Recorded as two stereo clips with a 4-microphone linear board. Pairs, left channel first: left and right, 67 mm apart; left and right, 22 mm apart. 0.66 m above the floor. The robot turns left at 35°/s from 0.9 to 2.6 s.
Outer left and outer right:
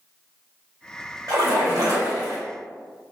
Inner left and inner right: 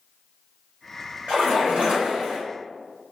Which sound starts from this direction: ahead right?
A splash, at 1.3 s.